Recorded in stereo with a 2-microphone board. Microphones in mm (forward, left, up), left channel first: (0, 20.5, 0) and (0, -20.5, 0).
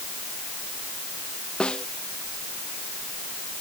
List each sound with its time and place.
1.6 s a snare drum: 30° left (ahead or behind)